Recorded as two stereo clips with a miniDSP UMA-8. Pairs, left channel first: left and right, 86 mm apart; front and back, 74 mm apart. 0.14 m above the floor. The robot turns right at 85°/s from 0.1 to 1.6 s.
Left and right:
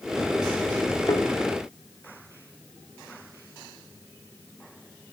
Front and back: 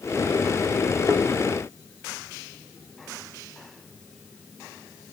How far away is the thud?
About 1.5 m.